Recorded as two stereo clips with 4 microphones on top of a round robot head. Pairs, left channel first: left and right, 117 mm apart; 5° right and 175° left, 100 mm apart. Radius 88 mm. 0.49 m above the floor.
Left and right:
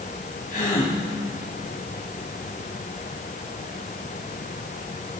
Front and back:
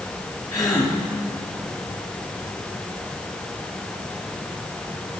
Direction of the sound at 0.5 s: 45° left.